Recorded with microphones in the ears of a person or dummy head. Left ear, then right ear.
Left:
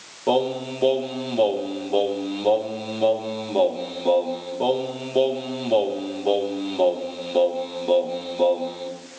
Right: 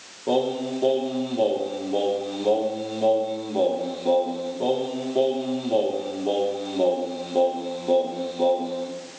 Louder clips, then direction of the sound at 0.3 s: Left 2 dB; 60° left (ahead or behind).